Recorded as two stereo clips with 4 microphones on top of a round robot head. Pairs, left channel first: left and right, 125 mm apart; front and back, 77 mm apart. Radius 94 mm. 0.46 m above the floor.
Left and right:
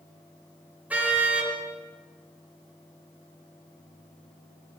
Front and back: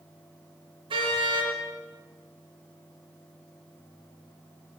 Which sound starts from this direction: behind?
A car horn, at 0.9 s.